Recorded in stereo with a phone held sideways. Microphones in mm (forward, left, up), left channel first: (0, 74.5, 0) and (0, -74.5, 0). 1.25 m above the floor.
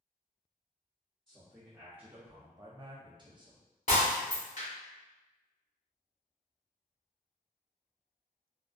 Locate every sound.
1.3 s a man speaking: centre (ahead or behind), 0.8 m; by 3.6 s 30° right (ahead or behind), 0.8 m
3.9 s breaking glass: 50° left (ahead or behind), 1.1 m